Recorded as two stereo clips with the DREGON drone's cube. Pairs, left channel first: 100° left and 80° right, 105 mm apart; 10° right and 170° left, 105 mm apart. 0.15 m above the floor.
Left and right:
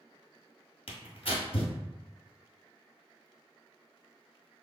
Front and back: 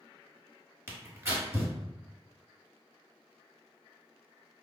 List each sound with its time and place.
0.9 s tearing paper: 110° left, 1.0 m